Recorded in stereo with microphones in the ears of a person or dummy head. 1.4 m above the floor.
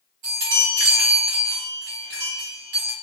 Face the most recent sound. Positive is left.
turn(degrees=-50)  # may be behind; listen again after turning